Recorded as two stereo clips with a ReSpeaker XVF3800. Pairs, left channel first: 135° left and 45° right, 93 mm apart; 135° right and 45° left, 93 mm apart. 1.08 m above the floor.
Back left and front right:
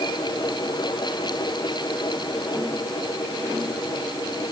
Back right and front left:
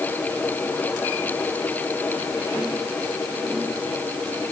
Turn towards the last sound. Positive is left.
No sound to turn to.